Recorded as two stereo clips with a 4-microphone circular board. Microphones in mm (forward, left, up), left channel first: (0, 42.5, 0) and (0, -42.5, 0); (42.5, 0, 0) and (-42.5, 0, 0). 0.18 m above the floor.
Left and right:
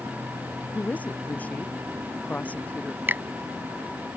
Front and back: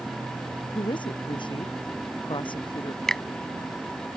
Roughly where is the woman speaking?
Ahead.